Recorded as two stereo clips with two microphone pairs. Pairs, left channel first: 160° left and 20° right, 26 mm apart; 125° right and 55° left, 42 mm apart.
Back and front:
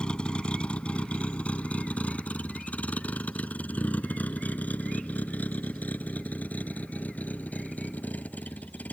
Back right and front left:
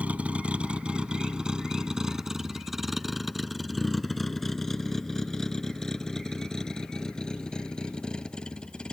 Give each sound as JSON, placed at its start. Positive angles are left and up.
{"t": 0.0, "sound": "a vehicle", "azimuth_deg": 110}